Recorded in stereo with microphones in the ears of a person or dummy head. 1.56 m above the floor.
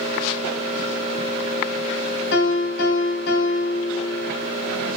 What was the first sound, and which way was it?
A piano, 75° left (ahead or behind).